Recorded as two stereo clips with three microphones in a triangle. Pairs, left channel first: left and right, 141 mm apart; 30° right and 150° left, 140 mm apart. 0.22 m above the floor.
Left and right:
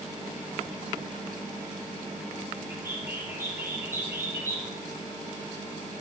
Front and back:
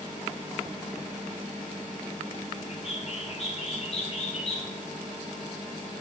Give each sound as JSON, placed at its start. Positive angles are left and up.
{"t": 2.7, "sound": "a bird", "azimuth_deg": -25, "distance_m": 1.8}